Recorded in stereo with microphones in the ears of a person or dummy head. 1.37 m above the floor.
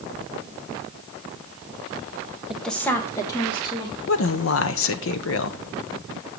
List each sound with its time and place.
2.5 s a woman speaking: centre (ahead or behind), 0.9 m; by 4.0 s 30° left (ahead or behind), 3 m
4.1 s a woman speaking: 75° left (ahead or behind), 0.7 m